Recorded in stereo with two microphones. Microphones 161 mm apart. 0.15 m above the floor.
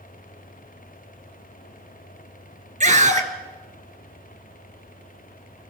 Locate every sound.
2.8 s a scream: 50° right (ahead or behind), 3 m